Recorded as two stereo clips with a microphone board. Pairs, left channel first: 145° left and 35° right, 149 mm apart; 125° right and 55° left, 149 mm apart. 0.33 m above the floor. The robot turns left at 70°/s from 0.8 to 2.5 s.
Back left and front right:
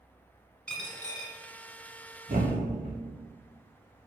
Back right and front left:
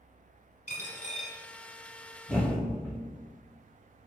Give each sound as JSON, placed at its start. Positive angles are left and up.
{"t": 0.7, "sound": "a dropped coin", "azimuth_deg": -135, "distance_m": 0.9}
{"t": 2.3, "sound": "a thud", "azimuth_deg": -35, "distance_m": 1.6}